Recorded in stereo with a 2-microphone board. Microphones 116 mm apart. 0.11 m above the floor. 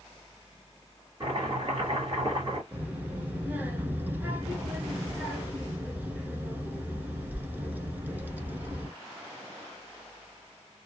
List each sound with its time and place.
1.2 s chopping: 40° right (ahead or behind), 2.5 m
2.7 s a child speaking: 15° right (ahead or behind), 1.2 m